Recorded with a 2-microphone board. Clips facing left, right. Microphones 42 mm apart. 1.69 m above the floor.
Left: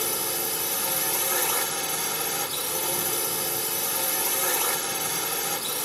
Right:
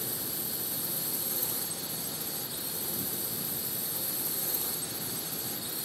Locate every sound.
0.0 s a drone: 80° left